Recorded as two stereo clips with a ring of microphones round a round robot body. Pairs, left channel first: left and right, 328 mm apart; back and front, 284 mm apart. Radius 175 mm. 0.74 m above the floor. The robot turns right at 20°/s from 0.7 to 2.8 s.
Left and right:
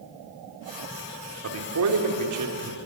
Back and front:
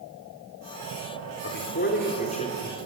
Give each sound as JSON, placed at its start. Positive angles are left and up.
{"t": 1.4, "sound": "a man speaking", "azimuth_deg": -130, "distance_m": 3.0}